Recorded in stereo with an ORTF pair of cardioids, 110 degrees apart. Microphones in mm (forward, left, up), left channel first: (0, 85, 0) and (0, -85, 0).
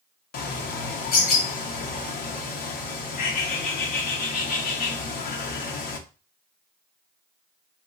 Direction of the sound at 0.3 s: 65° left.